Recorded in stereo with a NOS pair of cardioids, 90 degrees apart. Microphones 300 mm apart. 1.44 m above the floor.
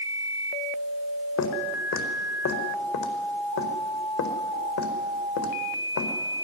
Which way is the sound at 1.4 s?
65° left.